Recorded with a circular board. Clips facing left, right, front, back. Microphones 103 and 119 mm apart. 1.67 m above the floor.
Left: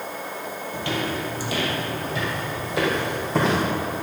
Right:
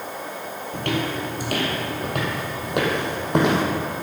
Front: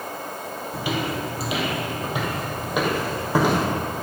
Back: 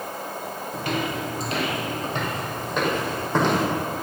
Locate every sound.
0.7 s footsteps: 80° right, 3 m